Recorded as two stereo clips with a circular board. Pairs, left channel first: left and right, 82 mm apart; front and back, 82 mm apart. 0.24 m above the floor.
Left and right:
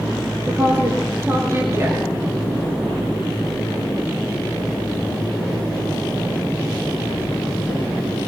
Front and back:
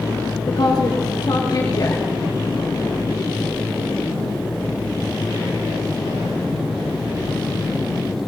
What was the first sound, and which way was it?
A woman speaking, 35° right.